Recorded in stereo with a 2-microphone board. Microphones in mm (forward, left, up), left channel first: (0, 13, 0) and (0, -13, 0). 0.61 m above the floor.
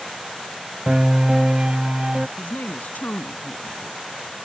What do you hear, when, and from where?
0.9 s a piano: 35° right (ahead or behind)
2.4 s a woman speaking: 75° left (ahead or behind)